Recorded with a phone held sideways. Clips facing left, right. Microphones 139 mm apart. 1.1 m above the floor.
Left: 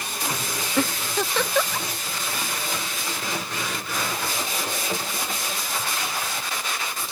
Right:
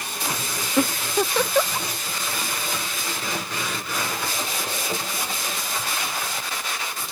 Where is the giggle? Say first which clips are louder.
Right 3 dB; 15° right (ahead or behind).